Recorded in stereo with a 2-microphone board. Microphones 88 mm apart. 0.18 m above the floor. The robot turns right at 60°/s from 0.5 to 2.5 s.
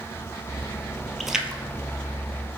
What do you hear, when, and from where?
1.2 s a splash: centre (ahead or behind), 0.7 m; by 1.6 s 25° right (ahead or behind), 0.7 m